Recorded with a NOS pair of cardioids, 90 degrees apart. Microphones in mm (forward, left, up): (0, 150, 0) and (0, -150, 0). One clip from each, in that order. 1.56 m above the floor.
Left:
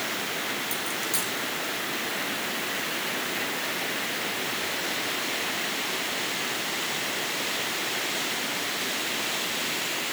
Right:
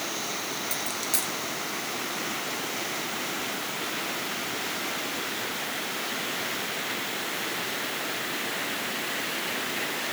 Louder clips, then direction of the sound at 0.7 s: Left 1 dB; 25° right.